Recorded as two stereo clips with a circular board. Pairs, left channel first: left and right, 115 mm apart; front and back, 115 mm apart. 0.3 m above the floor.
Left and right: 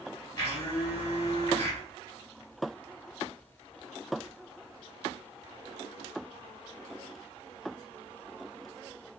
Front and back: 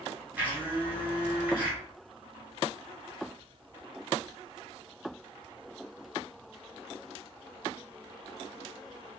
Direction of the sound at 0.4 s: 115° left.